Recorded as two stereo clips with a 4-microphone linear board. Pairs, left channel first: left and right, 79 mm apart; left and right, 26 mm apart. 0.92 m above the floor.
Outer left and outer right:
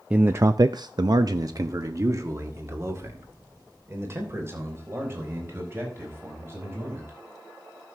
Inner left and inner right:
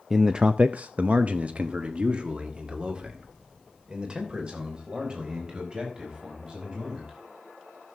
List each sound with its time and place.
0.1 s a man speaking: 15° right (ahead or behind), 0.5 m; by 7.2 s 35° right (ahead or behind), 5.5 m